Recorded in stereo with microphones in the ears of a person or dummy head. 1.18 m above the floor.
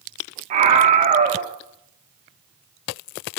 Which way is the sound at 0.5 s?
40° right (ahead or behind).